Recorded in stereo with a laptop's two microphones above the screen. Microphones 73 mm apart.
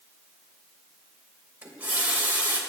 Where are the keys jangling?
I don't hear keys jangling.